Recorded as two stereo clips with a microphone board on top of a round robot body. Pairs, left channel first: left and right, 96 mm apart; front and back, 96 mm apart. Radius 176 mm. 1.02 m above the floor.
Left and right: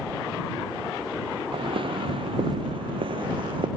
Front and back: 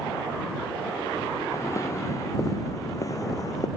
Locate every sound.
1.5 s footsteps: 60° right; by 3.7 s 55° right